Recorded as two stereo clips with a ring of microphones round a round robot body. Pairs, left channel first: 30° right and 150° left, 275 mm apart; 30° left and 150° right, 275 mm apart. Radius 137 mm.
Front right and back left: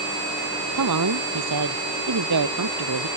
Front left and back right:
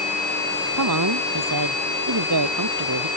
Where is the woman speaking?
Straight behind.